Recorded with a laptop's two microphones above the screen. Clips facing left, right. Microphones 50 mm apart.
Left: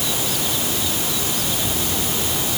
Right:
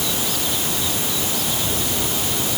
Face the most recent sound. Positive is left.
No sound to turn to.